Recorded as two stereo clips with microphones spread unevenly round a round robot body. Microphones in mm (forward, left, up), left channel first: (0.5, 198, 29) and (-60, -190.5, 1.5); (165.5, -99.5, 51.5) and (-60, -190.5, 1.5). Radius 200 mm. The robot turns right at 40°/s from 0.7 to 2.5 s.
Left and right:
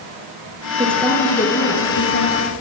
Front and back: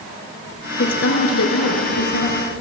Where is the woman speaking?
20° right, 5.5 m; by 2.6 s 50° left, 5.5 m.